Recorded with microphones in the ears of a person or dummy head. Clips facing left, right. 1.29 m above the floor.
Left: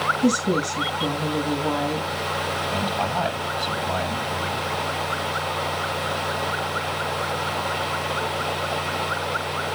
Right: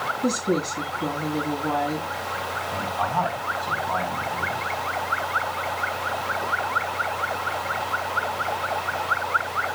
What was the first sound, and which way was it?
A woman speaking, 85° left.